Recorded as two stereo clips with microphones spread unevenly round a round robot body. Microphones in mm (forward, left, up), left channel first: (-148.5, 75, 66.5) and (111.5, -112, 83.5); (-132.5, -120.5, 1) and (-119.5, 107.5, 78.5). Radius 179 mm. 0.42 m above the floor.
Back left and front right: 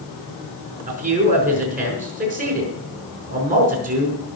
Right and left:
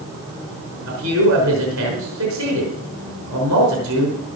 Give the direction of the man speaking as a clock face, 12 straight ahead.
11 o'clock.